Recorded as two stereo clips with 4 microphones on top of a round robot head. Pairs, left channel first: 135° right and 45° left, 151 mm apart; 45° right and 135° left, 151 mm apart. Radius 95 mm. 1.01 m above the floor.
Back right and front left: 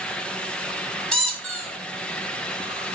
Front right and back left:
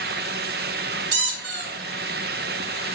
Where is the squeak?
135° left, 2.0 m.